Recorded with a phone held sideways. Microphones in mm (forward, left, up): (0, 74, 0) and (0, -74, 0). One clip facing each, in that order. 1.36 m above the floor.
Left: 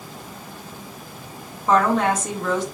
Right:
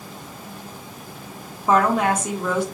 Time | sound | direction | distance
1.7 | a woman speaking | 10° right (ahead or behind) | 0.9 m